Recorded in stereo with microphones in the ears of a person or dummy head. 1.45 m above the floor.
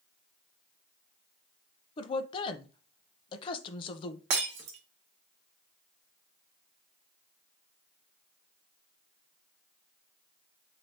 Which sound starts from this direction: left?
A woman speaking, at 2.0 s.